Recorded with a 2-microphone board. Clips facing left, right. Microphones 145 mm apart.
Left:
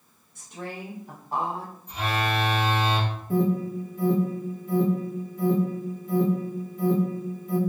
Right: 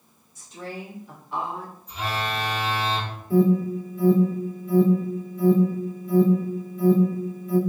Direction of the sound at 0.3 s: 60° left (ahead or behind).